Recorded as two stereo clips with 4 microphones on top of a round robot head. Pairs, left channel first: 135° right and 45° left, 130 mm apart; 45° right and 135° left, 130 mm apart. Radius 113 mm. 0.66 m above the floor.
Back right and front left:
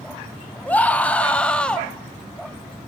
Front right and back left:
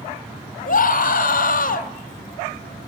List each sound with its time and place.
0.7 s a scream: 55° right, 4 m; by 1.9 s 50° right, 3.5 m